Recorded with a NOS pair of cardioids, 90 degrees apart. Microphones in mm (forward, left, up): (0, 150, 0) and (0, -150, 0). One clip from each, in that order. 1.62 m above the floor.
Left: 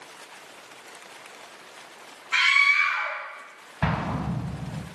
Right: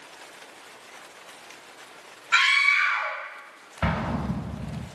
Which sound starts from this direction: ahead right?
A scream, at 2.3 s.